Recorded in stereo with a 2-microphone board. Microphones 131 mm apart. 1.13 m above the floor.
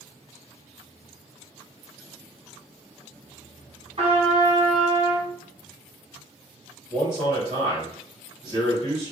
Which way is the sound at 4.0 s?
45° right (ahead or behind).